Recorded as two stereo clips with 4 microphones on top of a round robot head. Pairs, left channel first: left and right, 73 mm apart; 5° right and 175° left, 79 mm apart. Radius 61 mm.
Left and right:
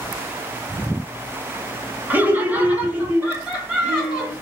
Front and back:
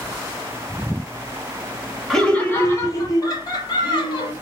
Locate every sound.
2.1 s laughter: 85° right, 0.9 m; by 4.3 s 15° right, 1.8 m